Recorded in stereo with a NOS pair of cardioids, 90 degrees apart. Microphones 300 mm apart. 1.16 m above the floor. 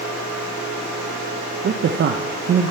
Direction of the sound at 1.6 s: 40° right.